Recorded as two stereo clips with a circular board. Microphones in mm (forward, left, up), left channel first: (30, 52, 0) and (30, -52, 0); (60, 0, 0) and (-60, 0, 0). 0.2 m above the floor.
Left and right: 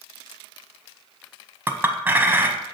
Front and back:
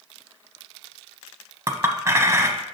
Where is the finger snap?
I don't hear a finger snap.